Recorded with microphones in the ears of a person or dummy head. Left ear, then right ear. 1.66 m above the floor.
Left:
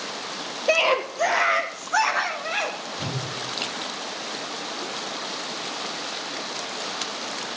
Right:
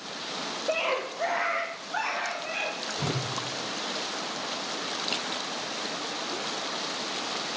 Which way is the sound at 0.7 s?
80° left.